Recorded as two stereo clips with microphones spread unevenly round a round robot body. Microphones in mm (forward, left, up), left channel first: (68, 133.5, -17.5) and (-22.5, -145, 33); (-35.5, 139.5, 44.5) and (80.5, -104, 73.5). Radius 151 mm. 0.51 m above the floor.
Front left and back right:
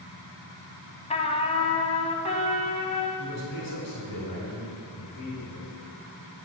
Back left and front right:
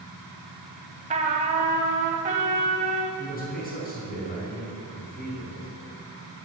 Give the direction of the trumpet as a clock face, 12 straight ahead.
12 o'clock.